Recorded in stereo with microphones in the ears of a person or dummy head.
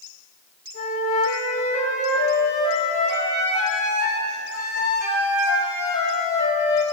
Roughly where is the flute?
Left.